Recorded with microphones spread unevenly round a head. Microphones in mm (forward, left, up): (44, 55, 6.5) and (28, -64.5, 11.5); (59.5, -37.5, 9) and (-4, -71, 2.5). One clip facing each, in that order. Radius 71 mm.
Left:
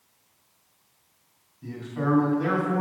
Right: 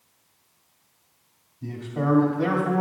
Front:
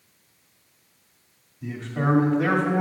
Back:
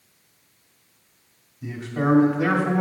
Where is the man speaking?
60° right, 2 m.